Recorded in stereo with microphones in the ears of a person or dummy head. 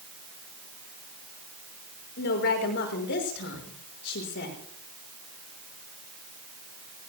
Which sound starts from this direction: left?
A woman speaking, at 2.2 s.